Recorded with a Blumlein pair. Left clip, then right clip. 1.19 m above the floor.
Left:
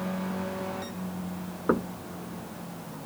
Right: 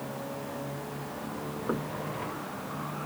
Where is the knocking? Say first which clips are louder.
Left 7 dB; 65° left.